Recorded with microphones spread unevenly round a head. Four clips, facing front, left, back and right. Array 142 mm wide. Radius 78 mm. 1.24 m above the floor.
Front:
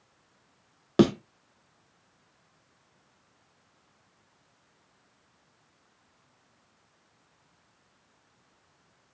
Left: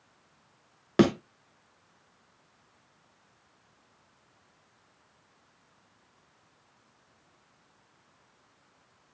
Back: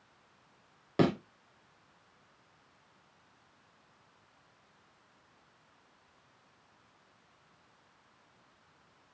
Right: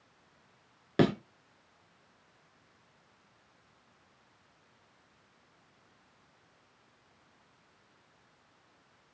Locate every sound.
1.0 s a thud: 25° left, 1.7 m